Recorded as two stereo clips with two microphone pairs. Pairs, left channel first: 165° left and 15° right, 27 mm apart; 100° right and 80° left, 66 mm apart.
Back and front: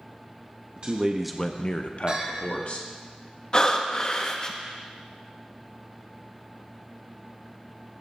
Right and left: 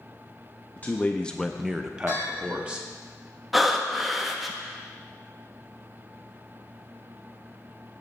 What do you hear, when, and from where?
0.8 s a man speaking: 50° right, 0.7 m; by 2.9 s 150° left, 1.6 m
2.1 s a bell: 70° right, 4 m
3.5 s breathing: 170° left, 0.7 m